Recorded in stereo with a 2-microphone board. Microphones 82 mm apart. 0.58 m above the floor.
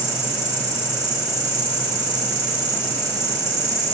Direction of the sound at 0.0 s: 30° left (ahead or behind).